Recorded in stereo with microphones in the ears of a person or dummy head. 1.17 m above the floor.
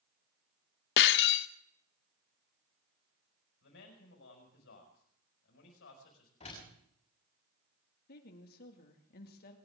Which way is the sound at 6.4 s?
30° left (ahead or behind).